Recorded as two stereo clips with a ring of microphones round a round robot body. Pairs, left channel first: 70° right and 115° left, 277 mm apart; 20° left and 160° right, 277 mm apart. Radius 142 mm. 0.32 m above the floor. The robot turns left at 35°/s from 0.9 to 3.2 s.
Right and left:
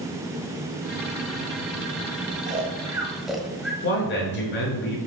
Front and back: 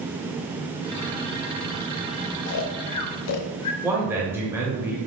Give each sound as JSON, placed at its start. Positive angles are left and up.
{"t": 2.5, "sound": "snoring", "azimuth_deg": 50, "distance_m": 0.5}
{"t": 3.8, "sound": "a man speaking", "azimuth_deg": -80, "distance_m": 1.1}